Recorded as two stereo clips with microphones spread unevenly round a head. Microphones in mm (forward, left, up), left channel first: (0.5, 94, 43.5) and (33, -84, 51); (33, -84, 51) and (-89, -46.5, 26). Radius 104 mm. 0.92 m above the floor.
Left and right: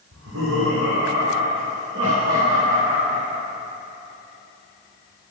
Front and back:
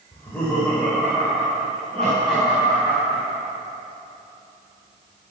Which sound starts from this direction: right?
Laughter, at 0.1 s.